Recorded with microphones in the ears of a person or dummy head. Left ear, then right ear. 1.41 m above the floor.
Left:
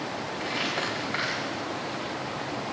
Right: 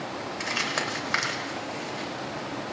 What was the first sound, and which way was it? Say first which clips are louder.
Crumpling: right 2 dB; 70° right (ahead or behind).